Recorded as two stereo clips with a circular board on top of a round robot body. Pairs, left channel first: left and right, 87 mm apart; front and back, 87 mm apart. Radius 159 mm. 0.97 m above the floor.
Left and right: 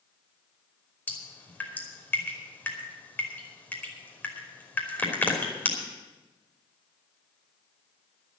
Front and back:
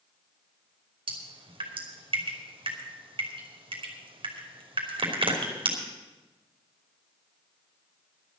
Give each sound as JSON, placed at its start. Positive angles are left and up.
{"t": 1.1, "sound": "dripping", "azimuth_deg": 160, "distance_m": 3.0}